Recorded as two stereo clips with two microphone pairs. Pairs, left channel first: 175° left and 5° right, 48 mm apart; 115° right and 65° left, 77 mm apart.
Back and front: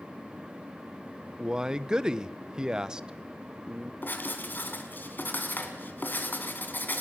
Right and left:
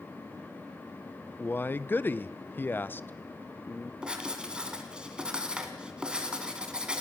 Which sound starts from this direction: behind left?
Writing, at 4.0 s.